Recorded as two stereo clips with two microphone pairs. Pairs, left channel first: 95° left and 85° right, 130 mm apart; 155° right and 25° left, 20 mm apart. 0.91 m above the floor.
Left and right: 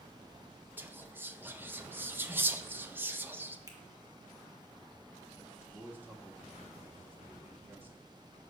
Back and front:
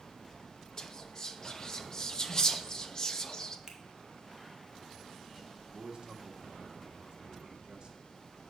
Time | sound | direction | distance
0.8 | whispering | 150° right | 0.6 m
3.7 | a finger snap | 20° right | 0.9 m
5.7 | a man speaking | 10° right | 1.3 m